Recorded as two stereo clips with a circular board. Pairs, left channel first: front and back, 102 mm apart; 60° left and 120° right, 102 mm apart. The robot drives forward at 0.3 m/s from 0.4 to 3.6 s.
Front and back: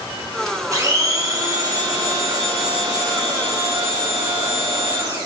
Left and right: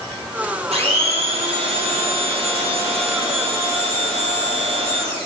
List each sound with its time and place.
0.7 s a blender: 125° right, 3.5 m; by 5.3 s 135° right, 4 m